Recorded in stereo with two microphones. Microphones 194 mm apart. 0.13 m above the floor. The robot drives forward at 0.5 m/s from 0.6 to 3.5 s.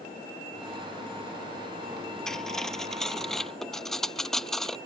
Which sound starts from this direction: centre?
Cutlery clinking, at 2.3 s.